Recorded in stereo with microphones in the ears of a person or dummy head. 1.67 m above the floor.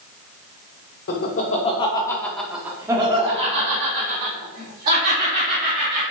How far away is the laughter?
About 0.8 m.